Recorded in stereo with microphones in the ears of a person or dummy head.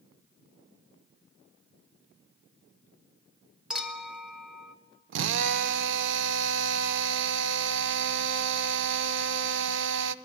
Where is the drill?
70° right (ahead or behind), 0.8 m.